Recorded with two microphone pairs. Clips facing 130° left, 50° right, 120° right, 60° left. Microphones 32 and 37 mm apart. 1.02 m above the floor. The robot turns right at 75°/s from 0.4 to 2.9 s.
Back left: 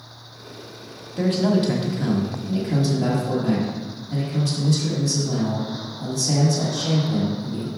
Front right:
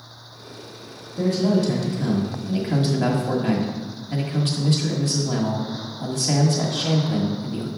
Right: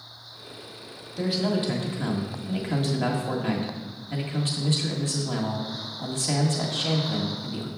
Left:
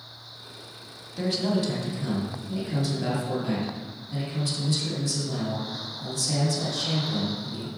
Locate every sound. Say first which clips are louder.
1.2 s a man speaking: even, even; 150° left, 1.7 m; by 7.7 s 80° right, 1.7 m